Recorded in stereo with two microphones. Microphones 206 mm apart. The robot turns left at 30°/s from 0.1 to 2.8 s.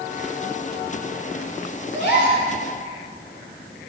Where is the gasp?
55° left (ahead or behind), 3 m; by 2.4 s 50° left (ahead or behind), 3 m.